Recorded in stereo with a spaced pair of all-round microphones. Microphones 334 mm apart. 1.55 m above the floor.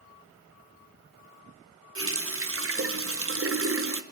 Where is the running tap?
40° right (ahead or behind), 0.7 m.